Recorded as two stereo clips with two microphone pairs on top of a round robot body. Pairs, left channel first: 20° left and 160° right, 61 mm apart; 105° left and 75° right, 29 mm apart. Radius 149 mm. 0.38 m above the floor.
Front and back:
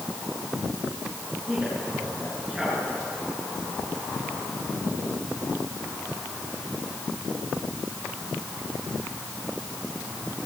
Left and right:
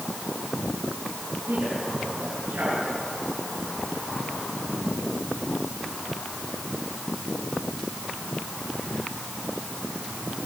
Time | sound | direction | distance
1.5 | a man speaking | 75° right | 8.5 m